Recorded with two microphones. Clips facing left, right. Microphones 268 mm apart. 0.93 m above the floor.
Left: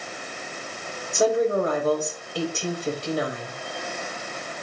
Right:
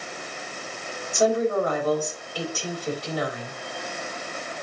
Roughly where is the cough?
I don't hear a cough.